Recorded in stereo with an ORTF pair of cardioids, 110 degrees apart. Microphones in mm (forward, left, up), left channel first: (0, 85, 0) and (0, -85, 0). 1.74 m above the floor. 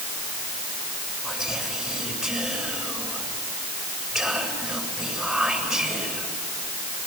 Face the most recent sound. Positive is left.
turn(degrees=-5)